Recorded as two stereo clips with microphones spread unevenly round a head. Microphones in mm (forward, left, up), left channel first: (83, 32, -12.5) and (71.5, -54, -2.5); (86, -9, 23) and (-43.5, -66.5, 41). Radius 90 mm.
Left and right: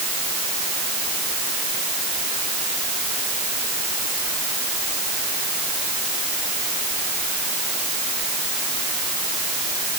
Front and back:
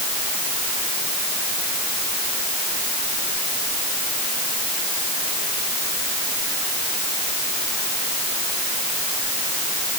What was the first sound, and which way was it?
Only background noise.